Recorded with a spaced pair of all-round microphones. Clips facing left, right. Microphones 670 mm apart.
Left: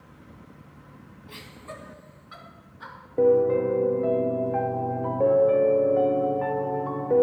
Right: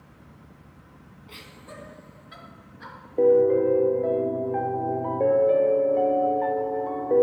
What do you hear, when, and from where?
1.3 s laughter: 40° left (ahead or behind), 1.4 m
3.2 s a piano: 40° left (ahead or behind), 0.6 m